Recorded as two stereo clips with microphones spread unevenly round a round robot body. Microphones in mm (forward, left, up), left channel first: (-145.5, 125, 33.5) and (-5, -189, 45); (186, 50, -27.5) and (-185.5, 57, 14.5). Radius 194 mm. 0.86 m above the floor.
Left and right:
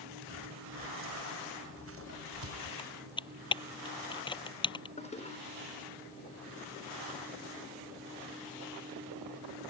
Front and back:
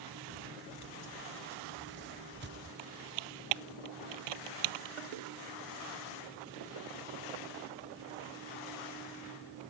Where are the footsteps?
120° right; by 2.7 s 115° right.